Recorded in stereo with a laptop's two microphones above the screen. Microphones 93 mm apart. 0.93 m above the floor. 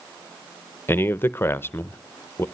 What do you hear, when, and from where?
0.9 s a man speaking: 25° left (ahead or behind), 0.6 m